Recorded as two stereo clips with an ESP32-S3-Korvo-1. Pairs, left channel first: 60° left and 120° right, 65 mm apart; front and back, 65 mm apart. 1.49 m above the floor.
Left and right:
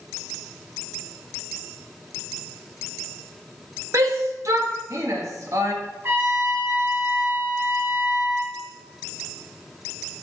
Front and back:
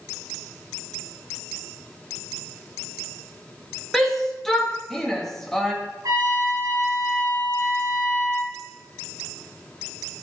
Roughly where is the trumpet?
Behind.